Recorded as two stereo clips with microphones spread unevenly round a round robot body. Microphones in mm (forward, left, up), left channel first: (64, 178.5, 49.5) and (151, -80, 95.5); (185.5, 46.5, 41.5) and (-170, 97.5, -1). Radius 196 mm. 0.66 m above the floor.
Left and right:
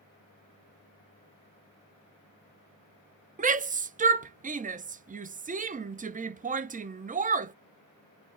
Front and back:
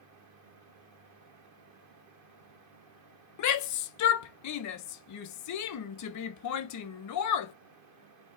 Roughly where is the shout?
Ahead.